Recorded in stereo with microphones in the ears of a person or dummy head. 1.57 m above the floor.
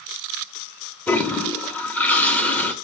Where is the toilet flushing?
10° left (ahead or behind), 0.9 m.